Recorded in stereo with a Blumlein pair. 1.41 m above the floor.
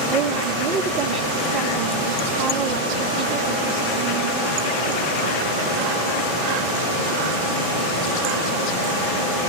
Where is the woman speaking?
40° right, 2.5 m.